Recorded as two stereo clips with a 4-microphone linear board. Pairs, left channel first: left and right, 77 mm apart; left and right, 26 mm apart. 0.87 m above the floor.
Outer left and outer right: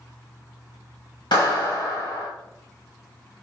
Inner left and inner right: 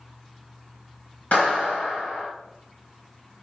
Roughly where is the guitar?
No guitar in this recording.